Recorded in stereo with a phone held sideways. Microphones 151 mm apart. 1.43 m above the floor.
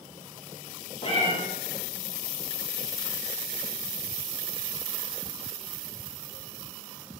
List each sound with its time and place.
1.0 s a cat meowing: 40° left (ahead or behind), 0.8 m